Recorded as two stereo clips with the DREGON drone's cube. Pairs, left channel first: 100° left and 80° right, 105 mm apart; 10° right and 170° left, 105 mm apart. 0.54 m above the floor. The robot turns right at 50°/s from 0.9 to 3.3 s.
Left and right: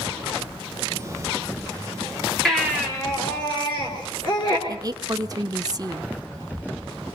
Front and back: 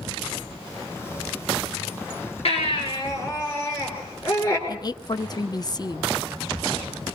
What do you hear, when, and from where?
2.5 s a baby crying: 15° left, 6 m; by 4.6 s 55° left, 6 m
4.7 s a woman speaking: 45° right, 0.9 m